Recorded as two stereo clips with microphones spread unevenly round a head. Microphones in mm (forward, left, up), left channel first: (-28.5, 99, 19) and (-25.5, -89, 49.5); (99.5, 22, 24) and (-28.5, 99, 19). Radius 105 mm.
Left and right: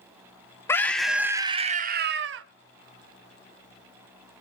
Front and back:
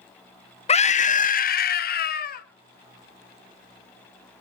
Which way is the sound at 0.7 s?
20° left.